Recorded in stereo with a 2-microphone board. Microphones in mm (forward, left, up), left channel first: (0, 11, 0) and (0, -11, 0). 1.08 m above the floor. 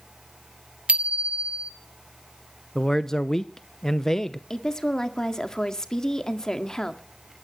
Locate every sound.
0.9 s a bicycle bell: 85° right, 2.5 m
2.8 s a man speaking: 25° left (ahead or behind), 0.8 m
4.5 s a woman speaking: 30° left (ahead or behind), 1.8 m